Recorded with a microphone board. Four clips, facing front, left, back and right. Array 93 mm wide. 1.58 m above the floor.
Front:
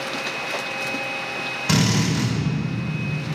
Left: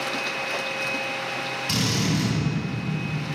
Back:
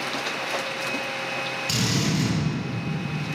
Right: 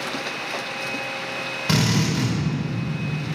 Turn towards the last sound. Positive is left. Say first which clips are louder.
# right 4 dB, front 6 dB
turn(degrees=-45)